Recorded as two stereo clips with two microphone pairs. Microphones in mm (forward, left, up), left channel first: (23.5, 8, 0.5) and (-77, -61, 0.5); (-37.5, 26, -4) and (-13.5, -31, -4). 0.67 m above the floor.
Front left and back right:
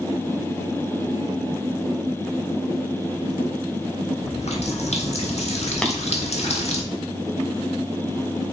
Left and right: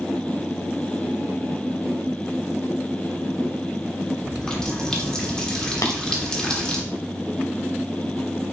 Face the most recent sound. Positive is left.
turn(degrees=120)